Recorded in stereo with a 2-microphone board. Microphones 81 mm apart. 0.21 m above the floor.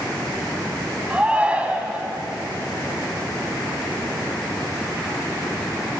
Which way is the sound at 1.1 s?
15° right (ahead or behind).